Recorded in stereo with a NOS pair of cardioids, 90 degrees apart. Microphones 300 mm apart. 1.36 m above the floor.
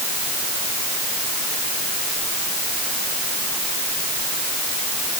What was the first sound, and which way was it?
Only background noise.